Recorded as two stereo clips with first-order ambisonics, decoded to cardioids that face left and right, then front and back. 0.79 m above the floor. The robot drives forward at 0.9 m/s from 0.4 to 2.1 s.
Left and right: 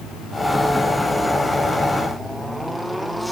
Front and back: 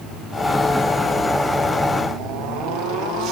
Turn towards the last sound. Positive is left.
No sound to turn to.